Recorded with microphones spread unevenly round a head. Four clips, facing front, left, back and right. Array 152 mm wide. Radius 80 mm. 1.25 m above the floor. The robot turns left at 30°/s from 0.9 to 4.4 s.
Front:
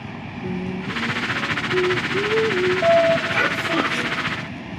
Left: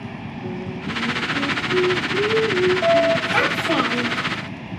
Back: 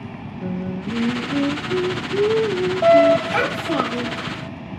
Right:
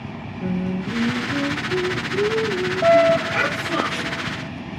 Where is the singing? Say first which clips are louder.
Right 5 dB, back 1 dB; 135° right, 6 m; by 3.2 s 155° left, 6 m.